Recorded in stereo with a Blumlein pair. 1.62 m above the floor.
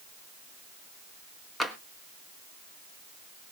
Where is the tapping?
Straight ahead, 1.2 m.